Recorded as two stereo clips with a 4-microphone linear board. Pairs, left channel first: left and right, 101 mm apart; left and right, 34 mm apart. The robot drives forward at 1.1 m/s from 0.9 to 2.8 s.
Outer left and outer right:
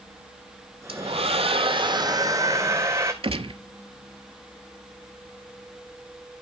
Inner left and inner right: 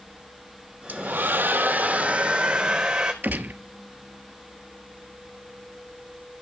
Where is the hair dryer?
60° right (ahead or behind), 0.9 m; by 3.1 s 25° right (ahead or behind), 1.9 m.